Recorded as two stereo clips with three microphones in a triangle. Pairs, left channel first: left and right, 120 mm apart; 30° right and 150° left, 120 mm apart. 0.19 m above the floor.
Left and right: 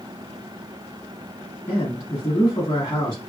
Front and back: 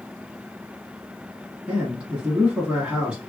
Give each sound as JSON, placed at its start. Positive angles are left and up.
{"t": 1.7, "sound": "a man speaking", "azimuth_deg": 80, "distance_m": 1.3}